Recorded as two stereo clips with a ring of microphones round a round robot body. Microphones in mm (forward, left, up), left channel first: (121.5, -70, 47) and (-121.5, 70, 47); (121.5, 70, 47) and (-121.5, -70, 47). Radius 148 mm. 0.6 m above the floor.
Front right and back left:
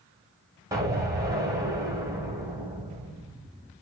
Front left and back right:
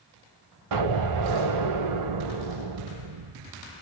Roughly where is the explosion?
Behind right.